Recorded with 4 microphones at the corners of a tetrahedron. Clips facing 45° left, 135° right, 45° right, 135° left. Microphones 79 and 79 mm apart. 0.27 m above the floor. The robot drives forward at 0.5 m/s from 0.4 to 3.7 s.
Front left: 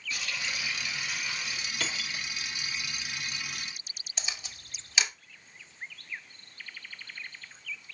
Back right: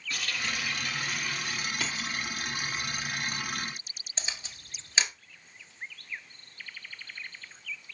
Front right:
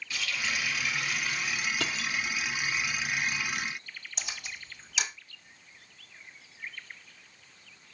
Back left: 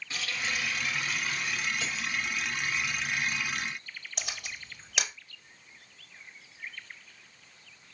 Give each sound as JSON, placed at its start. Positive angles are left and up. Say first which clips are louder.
{"t": 0.1, "sound": "a running tap", "louder": "back right 2 dB, even", "azimuth_deg": -165, "distance_m": 3.5}
{"t": 1.8, "sound": "cutlery clinking", "louder": "back right 2 dB, front right 1 dB", "azimuth_deg": -55, "distance_m": 1.2}
{"t": 4.2, "sound": "a camera shutter", "louder": "even, back left 1 dB", "azimuth_deg": 165, "distance_m": 1.5}